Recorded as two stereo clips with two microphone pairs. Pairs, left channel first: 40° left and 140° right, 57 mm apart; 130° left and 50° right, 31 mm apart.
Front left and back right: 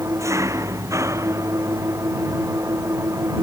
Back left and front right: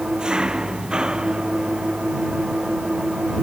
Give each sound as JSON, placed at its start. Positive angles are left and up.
{"t": 0.0, "sound": "an engine running", "azimuth_deg": -115}